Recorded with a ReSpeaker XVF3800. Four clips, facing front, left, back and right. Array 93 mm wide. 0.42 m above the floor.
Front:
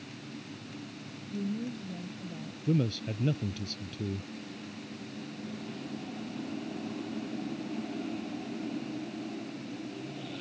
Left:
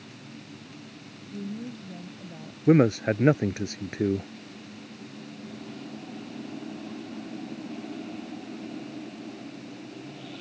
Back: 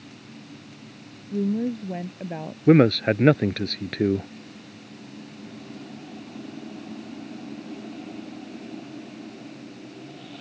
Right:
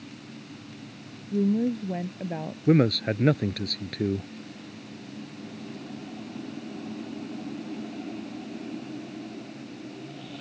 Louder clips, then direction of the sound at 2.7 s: Left 2 dB, back 14 dB; 160° left.